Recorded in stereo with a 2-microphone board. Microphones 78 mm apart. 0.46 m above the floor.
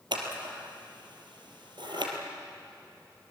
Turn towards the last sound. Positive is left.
turn(degrees=-80)